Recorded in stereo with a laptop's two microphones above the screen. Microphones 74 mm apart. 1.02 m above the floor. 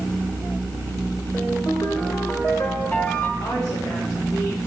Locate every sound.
1.3 s a ringtone: 25° left (ahead or behind), 1.7 m
3.4 s a woman speaking: 75° left (ahead or behind), 2.5 m